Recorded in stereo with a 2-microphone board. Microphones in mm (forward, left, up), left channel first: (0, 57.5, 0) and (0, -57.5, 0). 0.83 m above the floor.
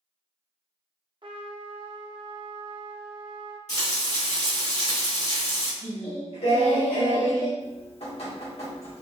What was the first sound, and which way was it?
A trumpet, 45° right (ahead or behind).